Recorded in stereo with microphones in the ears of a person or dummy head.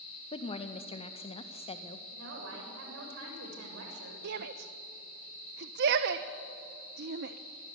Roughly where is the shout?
Right.